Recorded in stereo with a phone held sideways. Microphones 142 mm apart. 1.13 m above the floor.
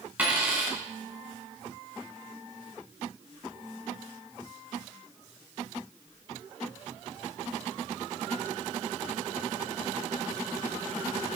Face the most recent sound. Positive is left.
turn(degrees=-10)  # may be behind; listen again after turning